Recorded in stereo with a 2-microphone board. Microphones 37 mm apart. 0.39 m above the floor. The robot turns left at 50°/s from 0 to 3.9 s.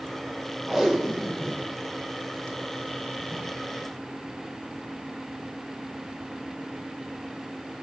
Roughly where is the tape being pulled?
Centre.